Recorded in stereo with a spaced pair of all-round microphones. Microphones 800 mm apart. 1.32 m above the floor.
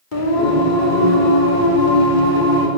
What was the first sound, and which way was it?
Singing, 80° left.